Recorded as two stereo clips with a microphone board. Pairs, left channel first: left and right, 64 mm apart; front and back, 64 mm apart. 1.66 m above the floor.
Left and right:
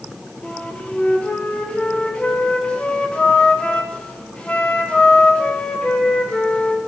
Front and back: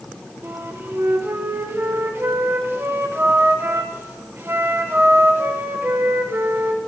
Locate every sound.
0.4 s a flute: 155° left, 0.9 m